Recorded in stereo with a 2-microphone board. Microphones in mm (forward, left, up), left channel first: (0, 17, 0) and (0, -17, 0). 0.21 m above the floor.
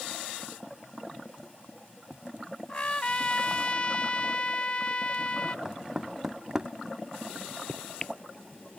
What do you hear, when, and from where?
2.7 s a trumpet: 35° left (ahead or behind)
5.7 s knocking: 20° right (ahead or behind)
7.3 s a microwave: 35° left (ahead or behind)